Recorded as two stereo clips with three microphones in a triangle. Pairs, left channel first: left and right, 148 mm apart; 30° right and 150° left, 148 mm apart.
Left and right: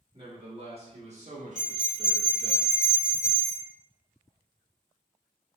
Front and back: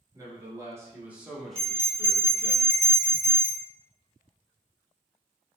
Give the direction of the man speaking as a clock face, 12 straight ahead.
5 o'clock.